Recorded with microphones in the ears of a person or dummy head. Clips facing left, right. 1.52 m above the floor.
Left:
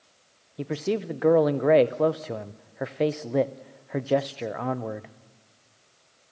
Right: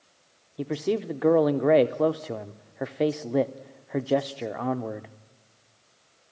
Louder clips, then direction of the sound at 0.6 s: Right 1 dB; centre (ahead or behind).